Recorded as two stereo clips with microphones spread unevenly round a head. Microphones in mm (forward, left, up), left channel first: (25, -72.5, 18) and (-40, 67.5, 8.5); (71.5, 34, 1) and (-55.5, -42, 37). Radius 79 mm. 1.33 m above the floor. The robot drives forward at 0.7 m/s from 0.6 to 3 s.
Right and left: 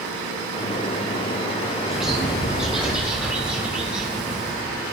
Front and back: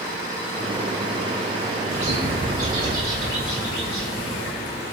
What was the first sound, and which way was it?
A bird, 155° right.